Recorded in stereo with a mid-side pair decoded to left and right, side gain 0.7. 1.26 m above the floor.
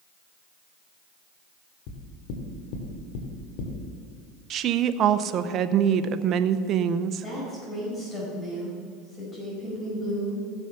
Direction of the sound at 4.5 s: 45° right.